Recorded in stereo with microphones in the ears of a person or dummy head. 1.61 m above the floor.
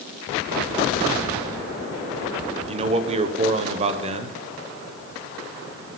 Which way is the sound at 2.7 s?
35° right (ahead or behind).